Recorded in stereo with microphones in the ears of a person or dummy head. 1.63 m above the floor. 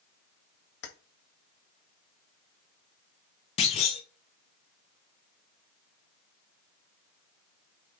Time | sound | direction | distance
0.8 | keys jangling | 70° left (ahead or behind) | 1.7 m
3.6 | a clunk | 35° left (ahead or behind) | 1.0 m